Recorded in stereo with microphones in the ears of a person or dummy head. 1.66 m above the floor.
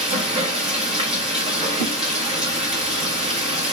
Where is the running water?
25° right (ahead or behind), 1.0 m.